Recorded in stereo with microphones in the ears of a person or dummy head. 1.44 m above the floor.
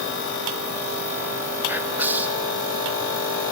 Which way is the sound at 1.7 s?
10° right (ahead or behind).